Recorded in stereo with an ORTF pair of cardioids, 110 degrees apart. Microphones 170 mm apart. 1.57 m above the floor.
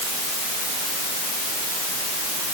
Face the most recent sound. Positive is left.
No sound to turn to.